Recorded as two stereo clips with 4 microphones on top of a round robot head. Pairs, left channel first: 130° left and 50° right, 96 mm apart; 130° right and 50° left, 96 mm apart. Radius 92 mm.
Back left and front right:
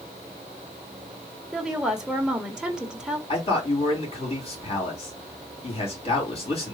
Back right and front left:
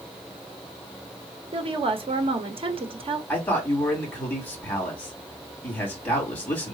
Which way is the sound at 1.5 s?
35° left.